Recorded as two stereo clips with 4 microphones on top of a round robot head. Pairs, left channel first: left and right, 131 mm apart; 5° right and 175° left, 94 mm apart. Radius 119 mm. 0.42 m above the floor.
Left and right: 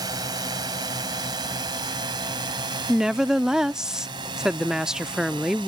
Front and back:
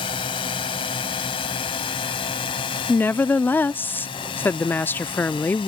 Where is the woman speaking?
10° right.